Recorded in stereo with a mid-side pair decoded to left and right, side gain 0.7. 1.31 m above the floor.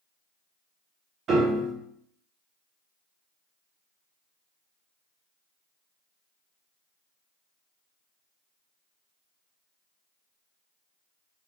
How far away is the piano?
About 1.4 m.